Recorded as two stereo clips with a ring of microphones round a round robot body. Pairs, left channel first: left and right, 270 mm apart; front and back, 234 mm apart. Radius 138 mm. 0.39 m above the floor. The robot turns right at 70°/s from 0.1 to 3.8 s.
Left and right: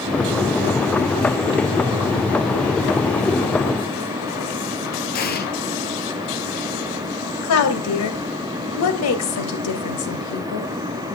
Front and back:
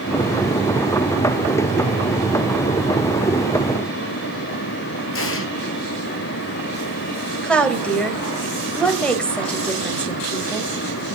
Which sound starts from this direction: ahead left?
An explosion, at 5.1 s.